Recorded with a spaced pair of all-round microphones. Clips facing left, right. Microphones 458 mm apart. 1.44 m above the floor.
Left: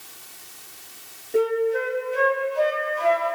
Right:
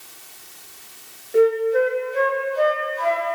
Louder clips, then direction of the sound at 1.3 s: Right 5 dB; 45° left (ahead or behind).